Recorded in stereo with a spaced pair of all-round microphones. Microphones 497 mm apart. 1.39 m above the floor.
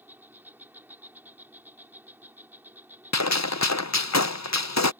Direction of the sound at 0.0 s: 5° right (ahead or behind).